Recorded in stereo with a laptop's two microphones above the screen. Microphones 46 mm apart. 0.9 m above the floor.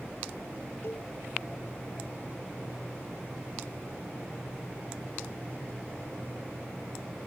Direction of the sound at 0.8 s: 55° left (ahead or behind).